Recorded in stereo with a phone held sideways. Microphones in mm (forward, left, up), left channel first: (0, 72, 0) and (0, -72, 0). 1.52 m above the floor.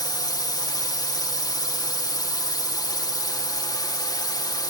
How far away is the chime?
No chime in this recording.